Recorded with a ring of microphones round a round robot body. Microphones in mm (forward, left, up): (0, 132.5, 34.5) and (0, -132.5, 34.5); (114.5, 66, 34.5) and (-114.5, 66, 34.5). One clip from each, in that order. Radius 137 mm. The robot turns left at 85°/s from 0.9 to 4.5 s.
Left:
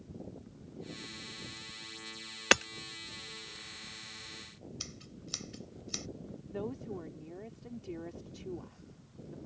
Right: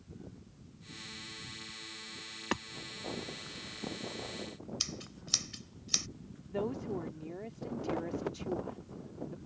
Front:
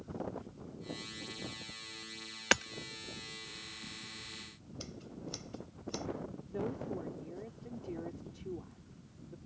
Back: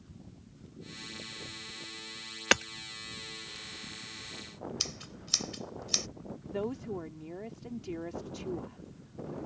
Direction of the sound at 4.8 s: 155° right.